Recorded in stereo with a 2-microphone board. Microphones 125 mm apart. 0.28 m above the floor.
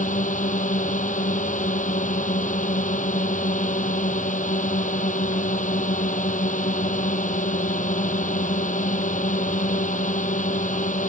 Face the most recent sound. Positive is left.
turn(degrees=75)  # may be behind; listen again after turning